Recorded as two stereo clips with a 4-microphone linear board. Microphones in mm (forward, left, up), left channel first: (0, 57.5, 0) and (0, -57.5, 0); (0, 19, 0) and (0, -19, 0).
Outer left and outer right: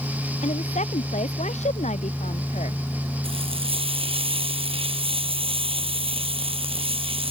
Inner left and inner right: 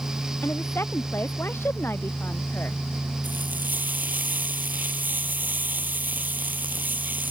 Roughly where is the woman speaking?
Left.